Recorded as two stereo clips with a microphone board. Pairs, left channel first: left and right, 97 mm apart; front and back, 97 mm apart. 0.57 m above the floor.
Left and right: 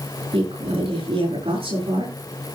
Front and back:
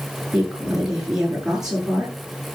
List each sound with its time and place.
0.3 s a woman speaking: 95° right, 8 m